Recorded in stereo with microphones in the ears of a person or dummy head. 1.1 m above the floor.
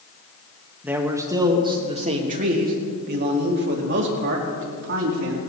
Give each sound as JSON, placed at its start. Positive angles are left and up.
{"t": 0.8, "sound": "a man speaking", "side_deg": -5, "distance_m": 1.5}